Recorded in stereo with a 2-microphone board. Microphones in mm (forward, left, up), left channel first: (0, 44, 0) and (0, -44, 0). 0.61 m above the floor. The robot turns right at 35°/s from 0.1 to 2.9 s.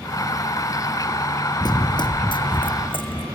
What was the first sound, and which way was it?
Running footsteps, 55° left (ahead or behind).